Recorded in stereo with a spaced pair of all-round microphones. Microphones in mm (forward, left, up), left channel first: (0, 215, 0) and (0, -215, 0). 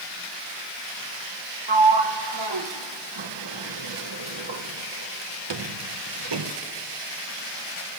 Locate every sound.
1.7 s a sliding door: 75° right (ahead or behind), 0.8 m